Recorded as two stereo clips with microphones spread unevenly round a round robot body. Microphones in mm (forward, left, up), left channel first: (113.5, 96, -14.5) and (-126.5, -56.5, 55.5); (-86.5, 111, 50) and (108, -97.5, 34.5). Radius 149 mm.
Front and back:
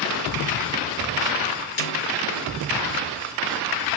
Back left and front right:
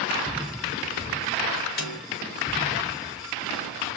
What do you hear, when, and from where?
1.8 s a snare drum: 75° left, 5.5 m